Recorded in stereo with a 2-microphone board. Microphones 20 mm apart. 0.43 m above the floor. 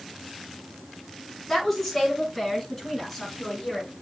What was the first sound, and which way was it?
A woman speaking, 5° left (ahead or behind).